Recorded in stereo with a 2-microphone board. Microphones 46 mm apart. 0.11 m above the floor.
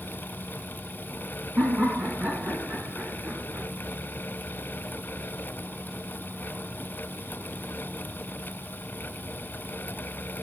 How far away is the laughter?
About 5.5 m.